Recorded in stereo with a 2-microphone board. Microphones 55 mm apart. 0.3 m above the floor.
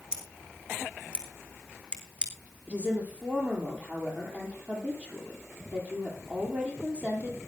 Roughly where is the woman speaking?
Right.